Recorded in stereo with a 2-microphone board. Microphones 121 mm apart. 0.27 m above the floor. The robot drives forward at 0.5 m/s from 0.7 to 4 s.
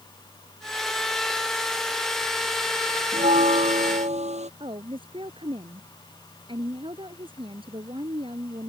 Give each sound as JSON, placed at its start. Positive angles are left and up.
{"t": 3.1, "sound": "a bell", "side_deg": -80}
{"t": 4.6, "sound": "a woman speaking", "side_deg": -45}